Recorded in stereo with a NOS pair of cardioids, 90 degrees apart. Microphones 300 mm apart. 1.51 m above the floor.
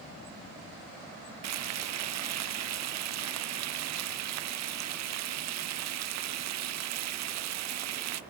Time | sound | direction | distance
1.4 | frying | 60° right | 0.6 m